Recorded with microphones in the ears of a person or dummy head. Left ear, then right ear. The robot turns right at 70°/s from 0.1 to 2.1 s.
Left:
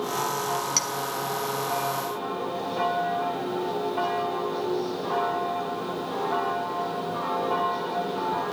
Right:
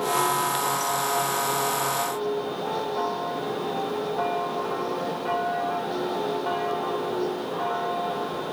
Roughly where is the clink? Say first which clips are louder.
Left 1 dB; left.